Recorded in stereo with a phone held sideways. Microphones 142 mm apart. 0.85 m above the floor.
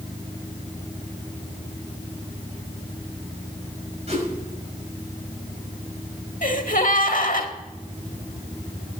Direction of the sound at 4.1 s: 45° right (ahead or behind).